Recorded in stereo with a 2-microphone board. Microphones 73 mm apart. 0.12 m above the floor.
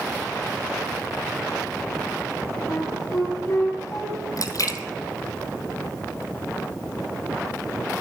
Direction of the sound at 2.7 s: 45° left (ahead or behind).